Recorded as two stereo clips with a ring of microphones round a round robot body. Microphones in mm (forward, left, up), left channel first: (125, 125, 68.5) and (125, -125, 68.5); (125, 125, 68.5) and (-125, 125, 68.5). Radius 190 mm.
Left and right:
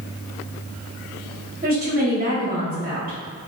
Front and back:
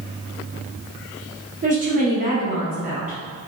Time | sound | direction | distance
1.6 | a woman speaking | 130° right | 1.6 m